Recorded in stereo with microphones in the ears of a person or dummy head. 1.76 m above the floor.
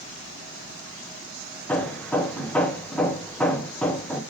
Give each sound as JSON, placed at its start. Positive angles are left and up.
{"t": 1.7, "sound": "hammering", "side_deg": 5, "distance_m": 1.1}